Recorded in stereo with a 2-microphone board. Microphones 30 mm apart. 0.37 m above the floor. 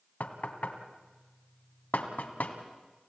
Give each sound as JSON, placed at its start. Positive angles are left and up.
{"t": 0.2, "sound": "knocking", "side_deg": 70, "distance_m": 1.9}